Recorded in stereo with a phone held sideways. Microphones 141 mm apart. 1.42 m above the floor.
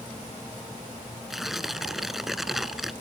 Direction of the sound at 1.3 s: Centre (ahead or behind).